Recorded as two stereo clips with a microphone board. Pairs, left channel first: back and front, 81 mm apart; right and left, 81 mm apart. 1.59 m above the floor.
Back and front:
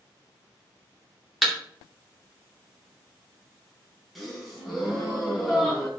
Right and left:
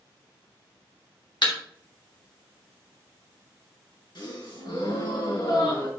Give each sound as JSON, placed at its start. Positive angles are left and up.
{"t": 1.4, "sound": "a thud", "azimuth_deg": -90, "distance_m": 2.5}
{"t": 4.2, "sound": "a gasp", "azimuth_deg": -90, "distance_m": 3.5}